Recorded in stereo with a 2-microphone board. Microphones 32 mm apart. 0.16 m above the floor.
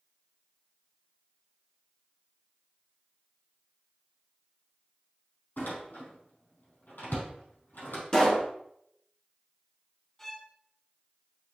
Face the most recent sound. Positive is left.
turn(degrees=10)  # may be behind; listen again after turning